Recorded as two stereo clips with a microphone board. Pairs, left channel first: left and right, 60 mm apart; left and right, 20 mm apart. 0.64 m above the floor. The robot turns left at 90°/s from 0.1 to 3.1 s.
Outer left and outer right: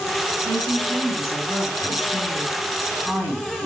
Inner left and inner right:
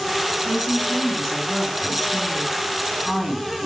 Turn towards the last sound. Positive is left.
turn(degrees=0)